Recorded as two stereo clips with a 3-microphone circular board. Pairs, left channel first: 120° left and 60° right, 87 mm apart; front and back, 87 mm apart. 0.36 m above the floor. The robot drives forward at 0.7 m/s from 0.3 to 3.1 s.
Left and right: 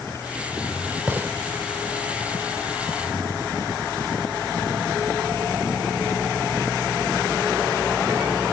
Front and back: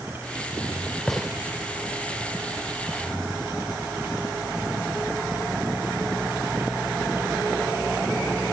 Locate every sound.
1.1 s a gunshot: 80° right, 0.8 m; by 1.3 s 105° right, 0.8 m